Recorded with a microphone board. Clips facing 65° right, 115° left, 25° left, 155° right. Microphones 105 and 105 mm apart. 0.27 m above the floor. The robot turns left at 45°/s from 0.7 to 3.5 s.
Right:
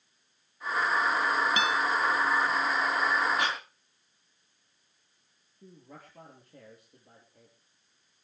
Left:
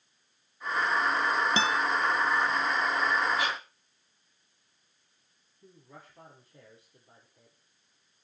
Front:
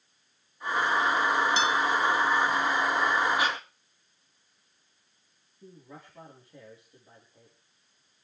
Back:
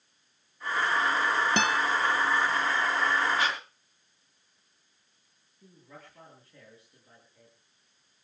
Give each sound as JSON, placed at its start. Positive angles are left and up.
{"t": 1.6, "sound": "a guitar", "azimuth_deg": 170, "distance_m": 0.6}
{"t": 3.4, "sound": "breathing", "azimuth_deg": -50, "distance_m": 4.5}
{"t": 5.6, "sound": "a man speaking", "azimuth_deg": -50, "distance_m": 5.0}